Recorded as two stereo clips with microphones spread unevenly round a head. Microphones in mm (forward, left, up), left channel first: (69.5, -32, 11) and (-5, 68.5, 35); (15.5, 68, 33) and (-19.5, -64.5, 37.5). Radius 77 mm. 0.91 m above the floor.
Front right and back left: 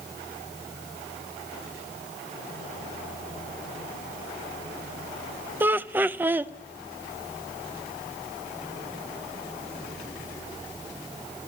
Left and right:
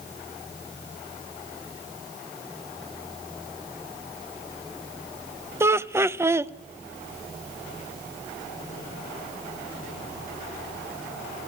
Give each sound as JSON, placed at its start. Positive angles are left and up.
{"t": 5.6, "sound": "laughter", "azimuth_deg": -155, "distance_m": 0.5}